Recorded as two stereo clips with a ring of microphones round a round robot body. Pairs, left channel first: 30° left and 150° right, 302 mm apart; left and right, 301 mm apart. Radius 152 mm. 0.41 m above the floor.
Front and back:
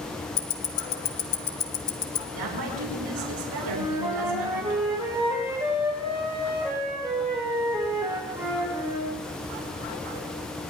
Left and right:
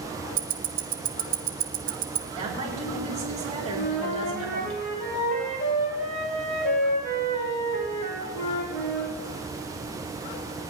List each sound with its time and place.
0.4 s ticking: 30° right, 1.2 m
2.3 s a woman speaking: 160° right, 6 m
3.8 s a flute: 130° left, 4.5 m